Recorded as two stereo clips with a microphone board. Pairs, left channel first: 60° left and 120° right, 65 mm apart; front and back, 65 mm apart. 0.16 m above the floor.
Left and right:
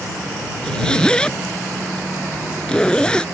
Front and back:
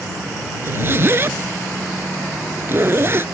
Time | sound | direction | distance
0.6 | a zipper | 135° left | ?